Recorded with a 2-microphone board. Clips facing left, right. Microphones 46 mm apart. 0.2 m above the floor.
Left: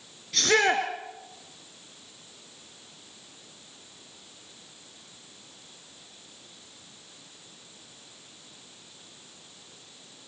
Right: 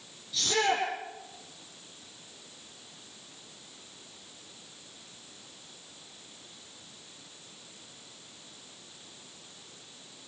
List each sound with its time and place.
0.3 s a shout: 65° left (ahead or behind), 3 m